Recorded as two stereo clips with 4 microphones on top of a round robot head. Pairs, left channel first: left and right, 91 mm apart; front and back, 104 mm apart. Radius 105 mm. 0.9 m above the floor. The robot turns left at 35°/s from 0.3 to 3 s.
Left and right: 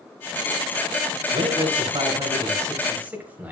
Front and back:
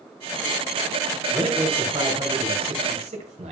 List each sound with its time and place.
1.3 s a man speaking: 105° right, 4.5 m; by 3.5 s 160° right, 4.5 m